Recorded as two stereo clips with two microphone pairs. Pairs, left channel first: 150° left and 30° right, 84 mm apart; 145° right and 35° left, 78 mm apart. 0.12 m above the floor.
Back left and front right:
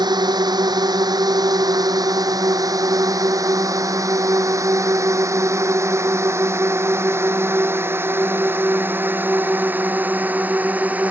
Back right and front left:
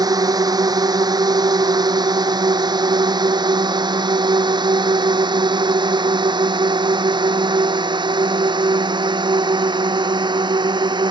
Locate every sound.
0.0 s a drone: 5° left; by 11.1 s 45° left